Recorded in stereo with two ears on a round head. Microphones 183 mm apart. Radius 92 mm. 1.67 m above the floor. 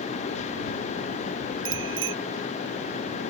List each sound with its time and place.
1.6 s a bicycle bell: 70° right (ahead or behind)